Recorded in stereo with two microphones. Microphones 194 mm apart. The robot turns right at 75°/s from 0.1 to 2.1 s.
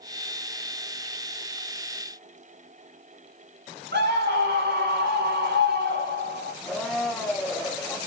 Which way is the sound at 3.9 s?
60° right (ahead or behind).